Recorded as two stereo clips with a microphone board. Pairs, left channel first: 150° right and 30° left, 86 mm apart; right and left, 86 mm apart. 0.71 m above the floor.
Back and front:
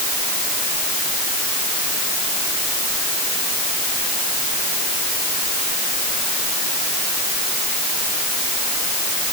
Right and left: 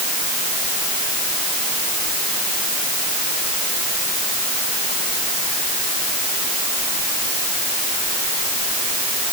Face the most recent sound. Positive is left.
No sound to turn to.